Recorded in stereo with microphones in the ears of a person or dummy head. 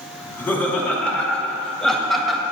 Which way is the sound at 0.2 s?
10° left (ahead or behind).